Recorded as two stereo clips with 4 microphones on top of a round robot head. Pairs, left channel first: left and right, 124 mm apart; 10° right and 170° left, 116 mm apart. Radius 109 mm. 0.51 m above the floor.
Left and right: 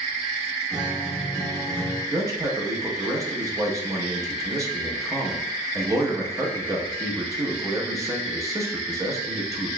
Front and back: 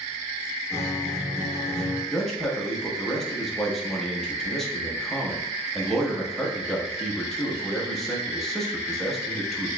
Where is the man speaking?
95° right, 0.9 m.